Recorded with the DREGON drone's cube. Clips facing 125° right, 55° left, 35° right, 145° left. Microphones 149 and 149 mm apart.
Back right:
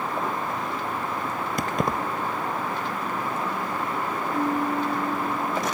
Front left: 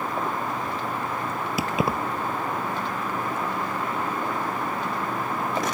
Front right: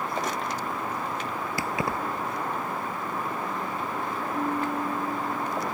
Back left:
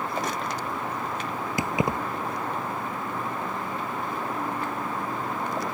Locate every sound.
1.6 s keys jangling: 130° left
4.3 s a piano: 95° right